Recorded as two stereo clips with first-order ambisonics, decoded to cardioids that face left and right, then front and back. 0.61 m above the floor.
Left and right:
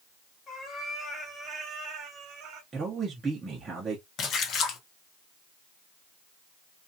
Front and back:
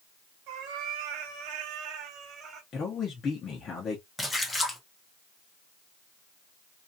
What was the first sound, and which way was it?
A cat meowing, 160° left.